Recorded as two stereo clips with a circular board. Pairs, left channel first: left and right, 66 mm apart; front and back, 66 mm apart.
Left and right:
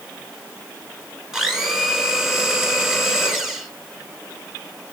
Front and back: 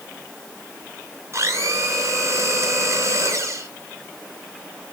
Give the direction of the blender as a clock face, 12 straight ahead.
6 o'clock.